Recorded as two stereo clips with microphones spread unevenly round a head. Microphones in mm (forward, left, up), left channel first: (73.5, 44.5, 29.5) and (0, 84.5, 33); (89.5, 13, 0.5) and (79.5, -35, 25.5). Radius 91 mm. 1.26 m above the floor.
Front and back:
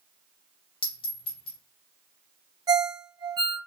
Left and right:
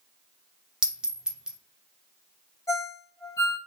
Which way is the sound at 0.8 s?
55° right.